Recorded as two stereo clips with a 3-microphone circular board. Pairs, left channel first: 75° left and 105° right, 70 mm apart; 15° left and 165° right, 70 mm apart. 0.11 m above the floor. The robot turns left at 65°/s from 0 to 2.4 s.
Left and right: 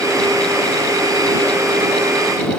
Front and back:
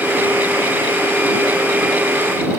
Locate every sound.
Only background noise.